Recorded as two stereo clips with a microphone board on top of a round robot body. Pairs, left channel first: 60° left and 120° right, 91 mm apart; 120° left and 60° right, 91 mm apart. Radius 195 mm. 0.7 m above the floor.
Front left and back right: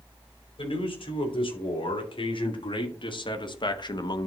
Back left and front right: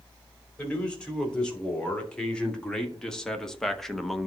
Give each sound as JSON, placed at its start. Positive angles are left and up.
{"t": 0.6, "sound": "a man speaking", "azimuth_deg": 40, "distance_m": 4.5}